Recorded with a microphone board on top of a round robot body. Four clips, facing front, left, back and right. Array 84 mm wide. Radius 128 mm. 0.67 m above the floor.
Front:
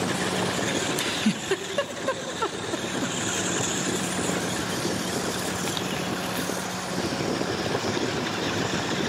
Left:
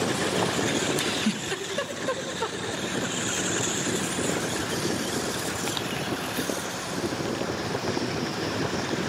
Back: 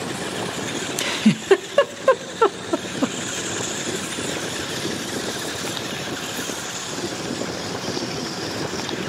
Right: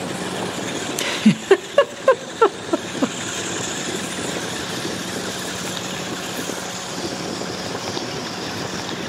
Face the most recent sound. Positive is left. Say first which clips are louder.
# right 9 dB, back 6 dB
turn(degrees=-115)